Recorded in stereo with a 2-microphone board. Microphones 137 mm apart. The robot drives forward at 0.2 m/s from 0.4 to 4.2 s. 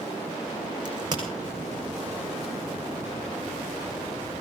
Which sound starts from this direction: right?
A crack, at 0.8 s.